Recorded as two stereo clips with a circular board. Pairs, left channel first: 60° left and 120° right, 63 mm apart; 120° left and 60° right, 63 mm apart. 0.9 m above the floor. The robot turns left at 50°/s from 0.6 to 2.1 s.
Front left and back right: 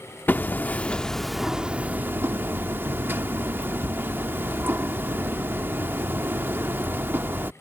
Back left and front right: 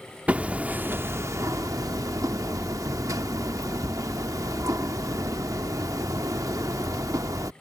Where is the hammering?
5° left; by 7.5 s 70° right.